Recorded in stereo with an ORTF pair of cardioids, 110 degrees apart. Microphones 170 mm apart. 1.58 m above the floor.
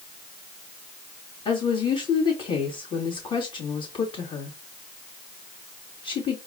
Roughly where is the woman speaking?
Ahead left.